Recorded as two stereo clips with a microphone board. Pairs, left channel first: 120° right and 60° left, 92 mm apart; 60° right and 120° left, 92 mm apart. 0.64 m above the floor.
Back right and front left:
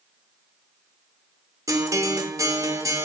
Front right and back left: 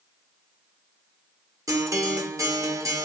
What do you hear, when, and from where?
1.7 s a guitar: 90° left, 0.8 m